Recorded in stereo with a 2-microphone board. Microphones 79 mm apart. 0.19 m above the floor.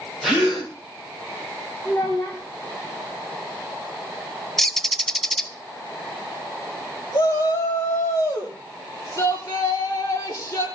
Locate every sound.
0.2 s a gasp: centre (ahead or behind), 8.5 m
1.9 s a child speaking: 20° left (ahead or behind), 7 m
4.6 s a bird: 5° left (ahead or behind), 0.7 m
7.1 s a shout: 40° left (ahead or behind), 6 m